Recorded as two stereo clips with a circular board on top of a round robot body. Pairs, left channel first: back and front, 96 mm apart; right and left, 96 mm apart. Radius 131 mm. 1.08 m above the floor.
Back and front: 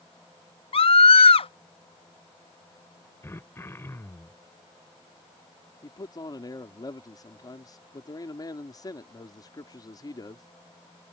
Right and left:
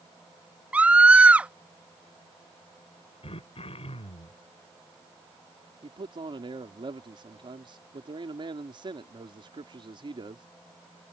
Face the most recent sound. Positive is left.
turn(degrees=130)